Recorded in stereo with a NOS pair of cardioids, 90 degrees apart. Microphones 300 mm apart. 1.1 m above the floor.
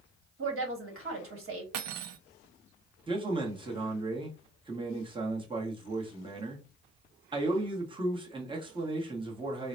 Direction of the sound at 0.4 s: 45° right.